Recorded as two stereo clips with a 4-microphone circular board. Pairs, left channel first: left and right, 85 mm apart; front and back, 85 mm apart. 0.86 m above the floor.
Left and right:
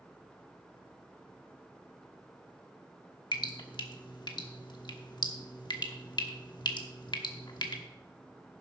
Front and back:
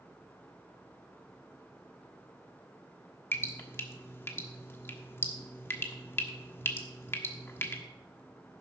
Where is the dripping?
60° left, 1.3 m.